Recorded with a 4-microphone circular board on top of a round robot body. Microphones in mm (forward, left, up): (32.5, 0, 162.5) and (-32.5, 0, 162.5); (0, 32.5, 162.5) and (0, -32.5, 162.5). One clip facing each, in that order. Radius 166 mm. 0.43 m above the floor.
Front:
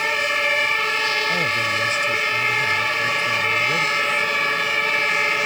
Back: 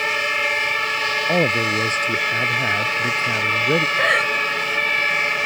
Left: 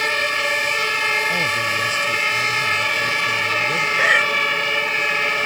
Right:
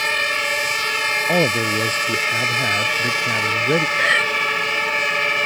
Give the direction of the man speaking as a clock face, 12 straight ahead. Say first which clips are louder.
Back 3 dB, right 3 dB; 4 o'clock.